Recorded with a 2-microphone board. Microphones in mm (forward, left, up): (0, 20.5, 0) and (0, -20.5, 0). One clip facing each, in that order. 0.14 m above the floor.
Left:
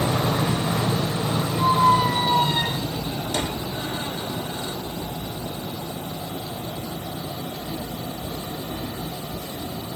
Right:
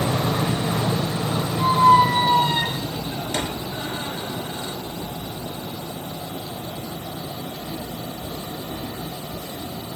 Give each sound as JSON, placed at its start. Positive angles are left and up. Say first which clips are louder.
{"t": 1.6, "sound": "a squeak", "louder": "right 4 dB", "side_deg": -35, "distance_m": 0.8}